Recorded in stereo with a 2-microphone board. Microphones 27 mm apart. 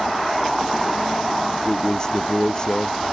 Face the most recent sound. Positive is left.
turn(degrees=30)  # may be behind; listen again after turning